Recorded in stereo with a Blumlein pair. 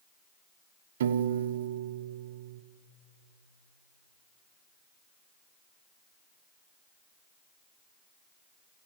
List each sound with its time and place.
1.0 s a piano: 60° right, 0.8 m